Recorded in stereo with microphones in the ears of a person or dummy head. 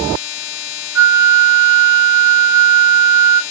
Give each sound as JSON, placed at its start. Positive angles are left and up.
{"t": 0.9, "sound": "a flute", "side_deg": -15, "distance_m": 0.6}